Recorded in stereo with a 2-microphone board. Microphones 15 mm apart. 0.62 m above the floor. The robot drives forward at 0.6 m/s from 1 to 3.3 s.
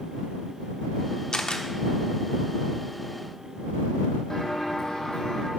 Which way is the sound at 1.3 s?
65° left (ahead or behind).